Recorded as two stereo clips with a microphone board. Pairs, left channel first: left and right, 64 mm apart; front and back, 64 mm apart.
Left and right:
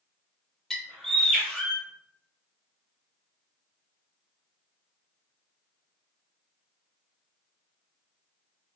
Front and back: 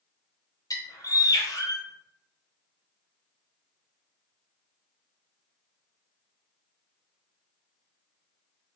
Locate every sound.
0.7 s a bird: 5° left, 0.6 m